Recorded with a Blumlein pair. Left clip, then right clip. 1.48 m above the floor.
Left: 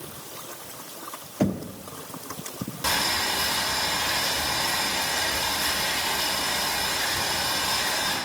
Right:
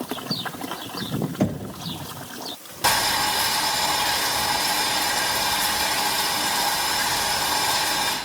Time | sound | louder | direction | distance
1.4 | knocking | left 2 dB | 5° right | 0.6 m
2.8 | boiling | right 4 dB | 15° right | 4 m